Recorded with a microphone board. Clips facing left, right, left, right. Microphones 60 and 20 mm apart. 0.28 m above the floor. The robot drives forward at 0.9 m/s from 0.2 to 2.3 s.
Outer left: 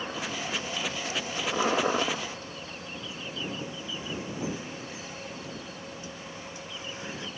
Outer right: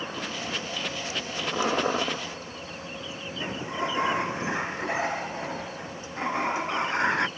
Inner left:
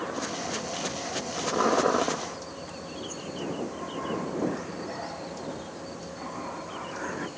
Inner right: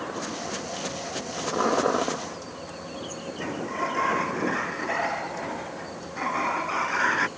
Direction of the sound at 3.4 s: 65° right (ahead or behind).